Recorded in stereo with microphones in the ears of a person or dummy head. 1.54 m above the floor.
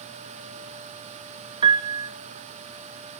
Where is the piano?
25° right (ahead or behind), 0.7 m.